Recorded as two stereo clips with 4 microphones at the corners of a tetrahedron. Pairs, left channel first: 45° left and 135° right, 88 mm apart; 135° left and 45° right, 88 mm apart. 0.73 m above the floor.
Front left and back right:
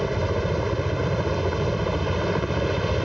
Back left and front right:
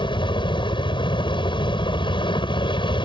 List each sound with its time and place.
0.0 s a helicopter: 135° left